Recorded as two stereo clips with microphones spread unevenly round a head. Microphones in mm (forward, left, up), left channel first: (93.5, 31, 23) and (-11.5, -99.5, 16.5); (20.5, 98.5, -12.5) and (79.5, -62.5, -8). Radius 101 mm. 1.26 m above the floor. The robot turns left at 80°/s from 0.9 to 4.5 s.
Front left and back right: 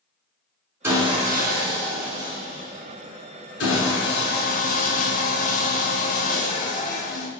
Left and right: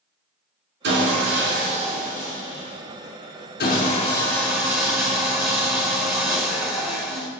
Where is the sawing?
50° right, 5.5 m; by 7.3 s 20° left, 5.5 m.